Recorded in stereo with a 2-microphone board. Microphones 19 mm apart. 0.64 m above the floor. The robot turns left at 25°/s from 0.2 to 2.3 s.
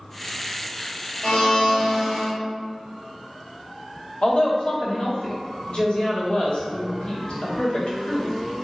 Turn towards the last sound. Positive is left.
turn(degrees=55)  # may be behind; listen again after turning